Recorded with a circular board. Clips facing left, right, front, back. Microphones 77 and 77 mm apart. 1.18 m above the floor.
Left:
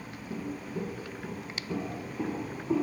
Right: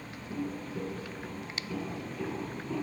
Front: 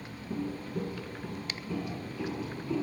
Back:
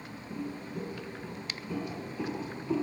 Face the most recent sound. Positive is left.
turn(degrees=140)